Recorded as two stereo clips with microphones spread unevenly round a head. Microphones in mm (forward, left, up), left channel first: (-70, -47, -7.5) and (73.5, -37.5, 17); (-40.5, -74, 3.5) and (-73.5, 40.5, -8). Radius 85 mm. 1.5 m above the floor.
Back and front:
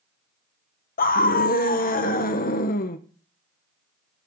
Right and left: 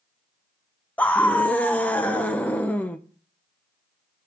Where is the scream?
150° right, 1.1 m.